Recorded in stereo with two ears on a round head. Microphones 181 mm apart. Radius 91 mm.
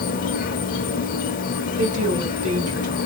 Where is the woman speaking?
45° right (ahead or behind), 2.5 m.